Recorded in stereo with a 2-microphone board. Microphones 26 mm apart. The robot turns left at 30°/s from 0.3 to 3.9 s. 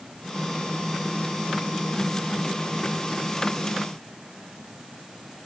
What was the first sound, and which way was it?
Only background noise.